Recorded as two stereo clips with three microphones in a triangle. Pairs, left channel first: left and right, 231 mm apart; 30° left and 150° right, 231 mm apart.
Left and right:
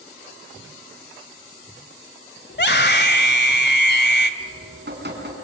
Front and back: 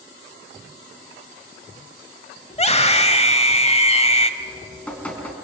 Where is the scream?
80° left, 1.8 m.